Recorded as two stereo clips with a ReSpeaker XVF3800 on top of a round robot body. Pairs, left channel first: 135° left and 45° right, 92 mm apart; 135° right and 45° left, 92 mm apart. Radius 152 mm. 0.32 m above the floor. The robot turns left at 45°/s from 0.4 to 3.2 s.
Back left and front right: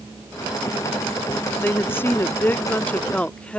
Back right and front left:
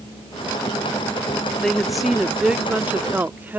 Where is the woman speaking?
150° left; by 3.6 s 75° left.